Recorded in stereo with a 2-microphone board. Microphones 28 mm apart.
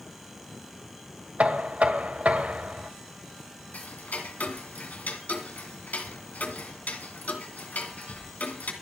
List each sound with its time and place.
1.4 s knocking: 55° right (ahead or behind), 1.7 m
3.7 s ticking: 75° left (ahead or behind), 2.5 m